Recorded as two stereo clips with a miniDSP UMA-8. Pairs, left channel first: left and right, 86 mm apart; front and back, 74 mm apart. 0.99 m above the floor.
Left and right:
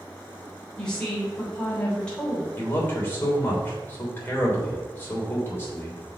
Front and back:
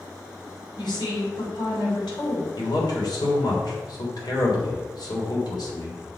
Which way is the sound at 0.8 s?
10° left.